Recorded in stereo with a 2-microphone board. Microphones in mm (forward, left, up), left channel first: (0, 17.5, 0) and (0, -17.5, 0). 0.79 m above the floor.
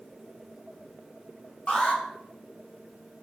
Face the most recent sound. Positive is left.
turn(degrees=35)  # may be behind; listen again after turning